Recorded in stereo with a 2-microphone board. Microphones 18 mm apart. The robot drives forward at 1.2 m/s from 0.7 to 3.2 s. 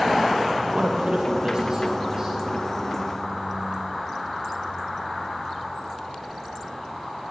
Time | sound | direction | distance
0.7 | a man speaking | 60° right (ahead or behind) | 1.3 m